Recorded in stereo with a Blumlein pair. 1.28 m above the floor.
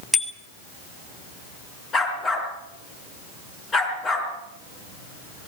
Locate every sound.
0.1 s a bicycle bell: straight ahead, 2.5 m
1.9 s a dog barking: 20° left, 4.5 m